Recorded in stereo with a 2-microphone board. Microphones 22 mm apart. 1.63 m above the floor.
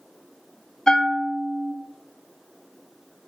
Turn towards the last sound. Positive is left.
turn(degrees=25)  # may be behind; listen again after turning